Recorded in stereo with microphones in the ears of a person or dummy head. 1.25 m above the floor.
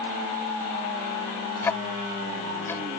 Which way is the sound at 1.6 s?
15° left (ahead or behind).